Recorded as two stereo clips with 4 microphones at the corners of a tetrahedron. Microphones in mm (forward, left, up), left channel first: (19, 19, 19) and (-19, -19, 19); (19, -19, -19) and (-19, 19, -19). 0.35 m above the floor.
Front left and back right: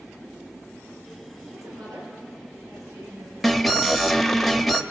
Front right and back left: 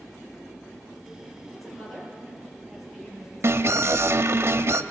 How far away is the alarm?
About 0.9 m.